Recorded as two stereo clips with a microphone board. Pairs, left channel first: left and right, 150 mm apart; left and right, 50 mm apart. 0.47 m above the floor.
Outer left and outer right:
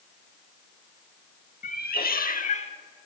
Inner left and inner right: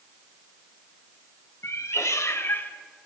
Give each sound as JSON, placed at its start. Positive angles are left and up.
{"t": 1.6, "sound": "a cat meowing", "side_deg": 75, "distance_m": 0.9}